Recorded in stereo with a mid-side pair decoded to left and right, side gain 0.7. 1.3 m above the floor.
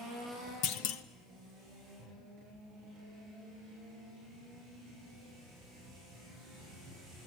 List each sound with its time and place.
0.6 s a clunk: 65° left, 1.2 m